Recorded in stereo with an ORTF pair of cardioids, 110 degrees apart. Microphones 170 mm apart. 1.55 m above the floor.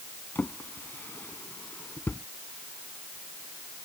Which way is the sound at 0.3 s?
10° left.